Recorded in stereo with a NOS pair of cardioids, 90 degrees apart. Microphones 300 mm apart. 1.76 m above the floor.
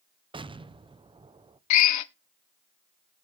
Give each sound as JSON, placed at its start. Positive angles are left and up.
{"t": 0.3, "sound": "an explosion", "azimuth_deg": -15, "distance_m": 0.7}
{"t": 1.7, "sound": "a drill", "azimuth_deg": 65, "distance_m": 0.7}